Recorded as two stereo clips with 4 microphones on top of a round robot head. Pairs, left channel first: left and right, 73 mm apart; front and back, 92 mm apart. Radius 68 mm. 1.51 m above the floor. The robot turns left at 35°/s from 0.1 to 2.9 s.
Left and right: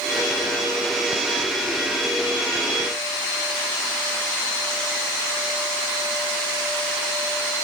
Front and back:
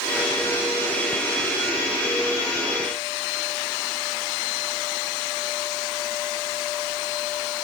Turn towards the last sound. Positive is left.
No sound to turn to.